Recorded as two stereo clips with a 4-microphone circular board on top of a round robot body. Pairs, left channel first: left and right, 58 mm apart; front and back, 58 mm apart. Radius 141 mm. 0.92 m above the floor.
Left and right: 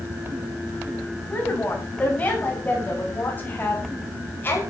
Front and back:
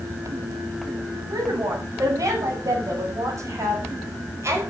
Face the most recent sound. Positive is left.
turn(degrees=145)